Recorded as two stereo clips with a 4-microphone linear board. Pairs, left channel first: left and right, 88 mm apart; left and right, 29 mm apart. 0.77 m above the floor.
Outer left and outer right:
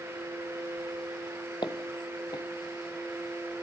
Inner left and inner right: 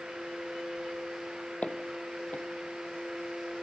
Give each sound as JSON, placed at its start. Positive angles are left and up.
{"t": 1.6, "sound": "footsteps", "side_deg": 55, "distance_m": 1.3}